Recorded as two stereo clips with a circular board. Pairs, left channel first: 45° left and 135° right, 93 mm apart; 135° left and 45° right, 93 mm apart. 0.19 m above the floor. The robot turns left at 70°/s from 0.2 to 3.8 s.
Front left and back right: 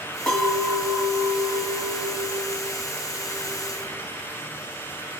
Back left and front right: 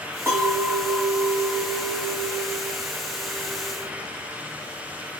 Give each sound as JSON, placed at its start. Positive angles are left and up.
{"t": 0.3, "sound": "a clink", "azimuth_deg": -20, "distance_m": 0.7}